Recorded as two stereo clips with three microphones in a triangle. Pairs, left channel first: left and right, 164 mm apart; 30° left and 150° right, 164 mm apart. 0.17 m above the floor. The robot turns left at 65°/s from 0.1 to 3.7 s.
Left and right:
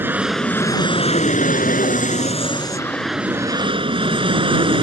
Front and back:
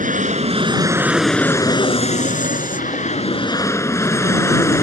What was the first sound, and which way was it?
An aircraft, 165° right.